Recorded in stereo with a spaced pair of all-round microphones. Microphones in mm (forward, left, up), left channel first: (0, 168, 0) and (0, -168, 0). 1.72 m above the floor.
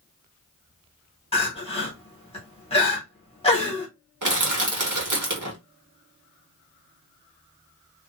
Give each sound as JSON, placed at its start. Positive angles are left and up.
{"t": 1.3, "sound": "crying", "side_deg": 15, "distance_m": 1.0}
{"t": 4.2, "sound": "crushing", "side_deg": -65, "distance_m": 1.0}